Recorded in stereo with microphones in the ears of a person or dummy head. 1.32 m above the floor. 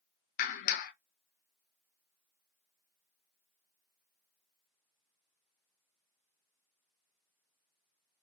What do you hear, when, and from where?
0.4 s a clap: 45° left (ahead or behind), 0.7 m